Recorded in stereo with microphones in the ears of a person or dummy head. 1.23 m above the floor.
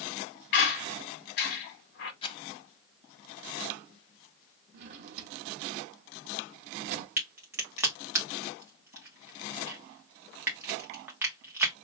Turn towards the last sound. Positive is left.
turn(degrees=-10)  # may be behind; listen again after turning